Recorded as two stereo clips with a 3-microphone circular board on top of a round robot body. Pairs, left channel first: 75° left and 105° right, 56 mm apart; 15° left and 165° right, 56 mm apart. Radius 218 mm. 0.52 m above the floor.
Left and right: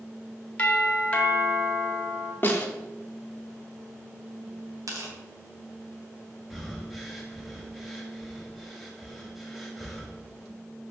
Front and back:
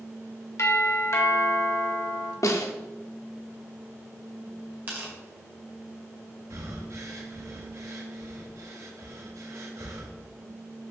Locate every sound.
0.6 s a doorbell: 15° left, 2 m
2.4 s a snare drum: 20° left, 1.2 m
4.9 s tearing paper: 105° right, 2 m
6.5 s breathing: 165° left, 1.0 m